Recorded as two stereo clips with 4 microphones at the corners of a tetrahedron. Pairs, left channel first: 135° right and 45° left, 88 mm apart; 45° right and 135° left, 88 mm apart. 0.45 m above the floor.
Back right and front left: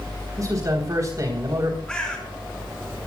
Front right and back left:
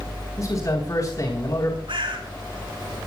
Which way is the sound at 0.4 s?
Straight ahead.